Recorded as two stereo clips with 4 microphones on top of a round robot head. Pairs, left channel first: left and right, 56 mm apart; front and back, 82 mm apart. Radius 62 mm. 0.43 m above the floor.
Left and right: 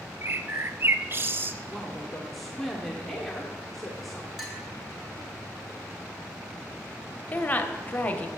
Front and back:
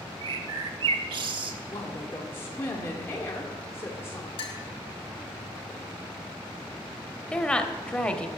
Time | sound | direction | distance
0.2 | a bird | 140° right | 0.6 m
1.7 | a woman speaking | straight ahead | 1.2 m
4.4 | a clink | 5° left | 1.6 m
7.3 | a woman speaking | 65° left | 0.9 m